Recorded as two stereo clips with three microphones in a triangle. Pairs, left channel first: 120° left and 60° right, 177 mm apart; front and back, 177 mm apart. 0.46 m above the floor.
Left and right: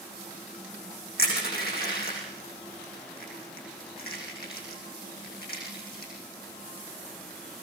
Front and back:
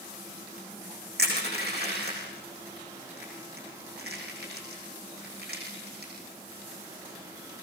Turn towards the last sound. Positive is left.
turn(degrees=155)